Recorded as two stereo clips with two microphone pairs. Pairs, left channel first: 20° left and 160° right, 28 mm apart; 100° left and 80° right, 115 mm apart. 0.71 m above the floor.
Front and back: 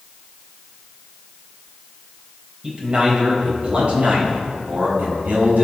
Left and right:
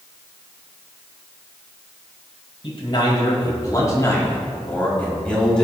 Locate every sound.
2.6 s a man speaking: 145° left, 4 m; by 5.6 s 175° right, 4.5 m